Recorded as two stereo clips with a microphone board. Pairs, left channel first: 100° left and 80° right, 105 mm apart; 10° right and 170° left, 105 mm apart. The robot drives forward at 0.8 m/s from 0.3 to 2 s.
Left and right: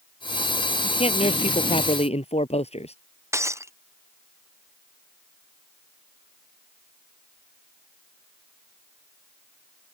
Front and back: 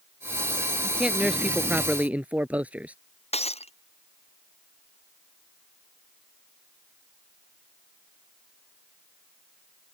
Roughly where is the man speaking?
Left.